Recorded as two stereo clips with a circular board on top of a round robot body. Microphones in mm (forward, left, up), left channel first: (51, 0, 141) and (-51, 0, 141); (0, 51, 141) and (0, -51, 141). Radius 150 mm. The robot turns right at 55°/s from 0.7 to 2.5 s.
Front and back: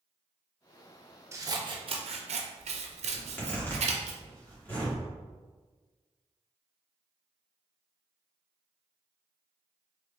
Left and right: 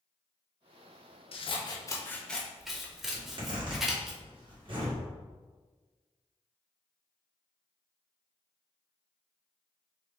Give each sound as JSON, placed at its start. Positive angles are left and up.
{"t": 1.3, "sound": "scissors", "azimuth_deg": 115, "distance_m": 0.6}
{"t": 3.1, "sound": "a zipper", "azimuth_deg": -70, "distance_m": 2.0}